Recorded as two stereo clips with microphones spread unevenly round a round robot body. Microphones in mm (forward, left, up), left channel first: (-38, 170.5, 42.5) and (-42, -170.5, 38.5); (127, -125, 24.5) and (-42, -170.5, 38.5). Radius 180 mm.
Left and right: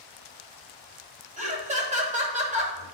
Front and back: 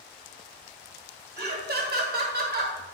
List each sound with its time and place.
1.4 s laughter: 155° right, 2 m